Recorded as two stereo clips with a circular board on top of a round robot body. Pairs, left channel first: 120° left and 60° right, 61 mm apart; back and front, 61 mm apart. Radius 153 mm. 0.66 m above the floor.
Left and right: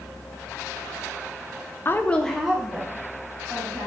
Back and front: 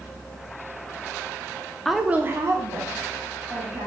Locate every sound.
1.9 s a woman speaking: 100° left, 0.5 m; by 3.9 s straight ahead, 1.5 m